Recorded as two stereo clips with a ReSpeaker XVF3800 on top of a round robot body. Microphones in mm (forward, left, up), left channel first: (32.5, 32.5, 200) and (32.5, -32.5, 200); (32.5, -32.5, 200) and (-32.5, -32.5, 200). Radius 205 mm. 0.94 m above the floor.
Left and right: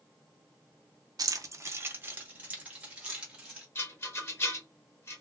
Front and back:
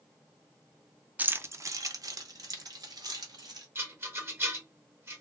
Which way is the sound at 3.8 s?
135° left.